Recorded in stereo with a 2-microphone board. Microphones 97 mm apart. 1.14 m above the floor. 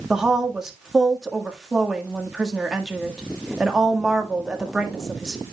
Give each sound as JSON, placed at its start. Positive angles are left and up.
{"t": 0.1, "sound": "a woman speaking", "side_deg": -5, "distance_m": 1.6}